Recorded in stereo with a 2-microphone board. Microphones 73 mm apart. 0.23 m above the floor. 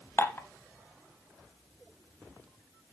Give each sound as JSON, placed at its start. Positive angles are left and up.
{"t": 0.2, "sound": "dishes clattering", "side_deg": 30, "distance_m": 0.7}